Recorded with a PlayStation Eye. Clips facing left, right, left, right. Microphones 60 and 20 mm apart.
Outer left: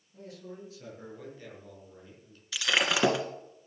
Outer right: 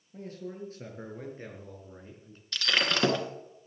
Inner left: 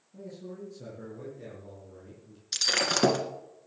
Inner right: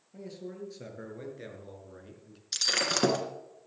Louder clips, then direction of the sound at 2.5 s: Outer left 1 dB, inner left 2 dB; 5° left (ahead or behind).